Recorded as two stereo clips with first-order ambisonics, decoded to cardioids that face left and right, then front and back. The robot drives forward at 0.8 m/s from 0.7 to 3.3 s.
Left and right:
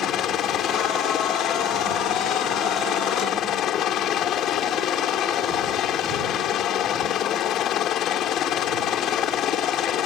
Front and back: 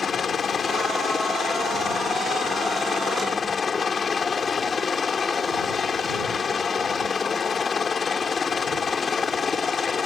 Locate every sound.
0.0 s a helicopter: 60° left; by 10.1 s 65° left